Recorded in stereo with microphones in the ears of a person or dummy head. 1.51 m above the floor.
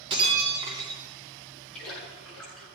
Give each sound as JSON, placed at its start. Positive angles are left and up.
{"t": 0.1, "sound": "breaking glass", "side_deg": -30, "distance_m": 2.5}
{"t": 1.7, "sound": "a splash", "side_deg": 0, "distance_m": 7.0}